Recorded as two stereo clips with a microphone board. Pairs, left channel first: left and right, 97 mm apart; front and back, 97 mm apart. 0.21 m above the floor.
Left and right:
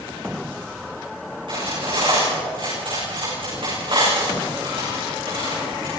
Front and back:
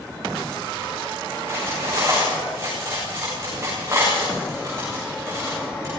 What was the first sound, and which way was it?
Cutlery clinking, 120° right.